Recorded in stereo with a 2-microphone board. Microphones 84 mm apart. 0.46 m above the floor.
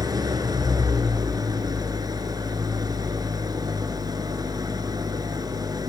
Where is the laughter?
I don't hear laughter.